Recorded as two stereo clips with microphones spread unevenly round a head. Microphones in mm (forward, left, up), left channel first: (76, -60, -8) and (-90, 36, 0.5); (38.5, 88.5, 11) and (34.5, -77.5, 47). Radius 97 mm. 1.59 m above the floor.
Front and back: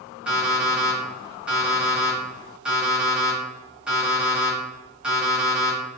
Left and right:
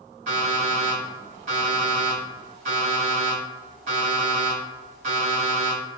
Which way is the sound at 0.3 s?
130° right.